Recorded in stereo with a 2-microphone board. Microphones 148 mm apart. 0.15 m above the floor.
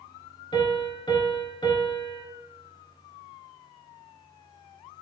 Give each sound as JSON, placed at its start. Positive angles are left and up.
{"t": 0.5, "sound": "a piano", "side_deg": 30, "distance_m": 0.7}